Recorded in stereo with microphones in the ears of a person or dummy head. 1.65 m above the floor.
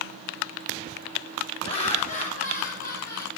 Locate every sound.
1.6 s laughter: 30° left (ahead or behind), 2.5 m; by 3.3 s 60° left (ahead or behind), 2.5 m